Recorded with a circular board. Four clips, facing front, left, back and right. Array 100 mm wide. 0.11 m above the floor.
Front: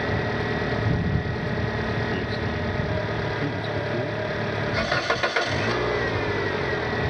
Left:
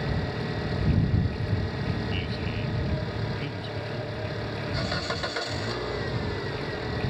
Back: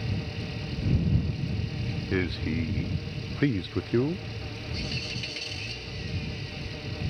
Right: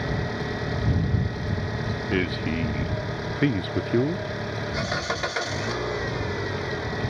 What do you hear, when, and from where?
0.0 s an engine running: 5° right
2.1 s a man speaking: 120° right